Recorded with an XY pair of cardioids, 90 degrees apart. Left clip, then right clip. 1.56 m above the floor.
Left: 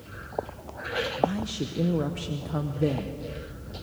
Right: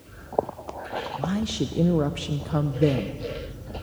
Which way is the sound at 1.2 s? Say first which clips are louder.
Left 1 dB; 35° right.